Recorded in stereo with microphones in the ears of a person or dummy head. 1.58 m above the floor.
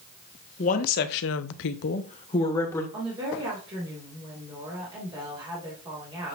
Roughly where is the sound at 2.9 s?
Right.